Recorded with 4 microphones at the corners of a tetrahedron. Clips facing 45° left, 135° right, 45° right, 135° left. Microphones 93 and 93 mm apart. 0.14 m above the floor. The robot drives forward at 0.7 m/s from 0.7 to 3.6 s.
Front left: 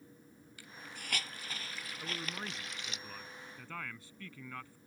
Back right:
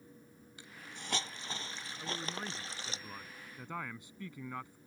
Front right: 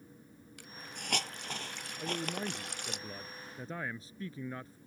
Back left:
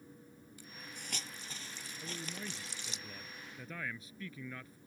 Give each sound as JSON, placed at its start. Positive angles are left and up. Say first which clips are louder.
{"t": 0.6, "sound": "a hiss", "louder": "even, front right 4 dB", "azimuth_deg": -70}
{"t": 2.0, "sound": "a man speaking", "louder": "back right 2 dB, front right 9 dB", "azimuth_deg": -40}